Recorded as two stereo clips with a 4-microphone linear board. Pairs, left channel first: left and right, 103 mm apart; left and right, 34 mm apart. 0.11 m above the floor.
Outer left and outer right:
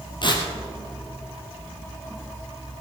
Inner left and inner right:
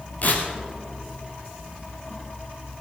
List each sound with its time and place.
0.2 s tearing paper: 50° left (ahead or behind), 2.5 m